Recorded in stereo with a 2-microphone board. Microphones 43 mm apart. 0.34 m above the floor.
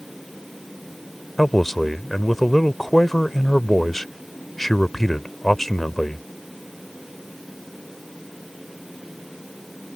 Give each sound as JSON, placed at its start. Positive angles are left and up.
{"t": 1.4, "sound": "a man speaking", "side_deg": 5}